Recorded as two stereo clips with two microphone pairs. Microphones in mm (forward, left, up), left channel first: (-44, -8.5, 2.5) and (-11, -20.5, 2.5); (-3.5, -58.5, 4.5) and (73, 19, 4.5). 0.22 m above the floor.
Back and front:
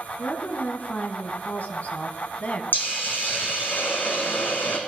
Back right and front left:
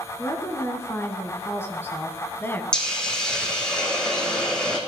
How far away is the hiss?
About 3 m.